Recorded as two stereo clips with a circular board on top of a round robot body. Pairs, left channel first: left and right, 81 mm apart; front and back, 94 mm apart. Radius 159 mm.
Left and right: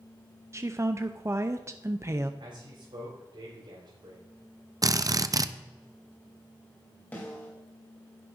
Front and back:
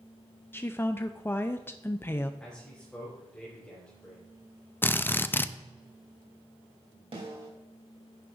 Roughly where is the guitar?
I don't hear a guitar.